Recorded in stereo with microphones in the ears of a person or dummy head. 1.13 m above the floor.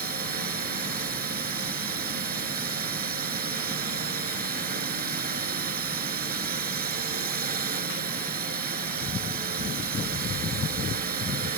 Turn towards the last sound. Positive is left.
turn(degrees=-45)  # may be behind; listen again after turning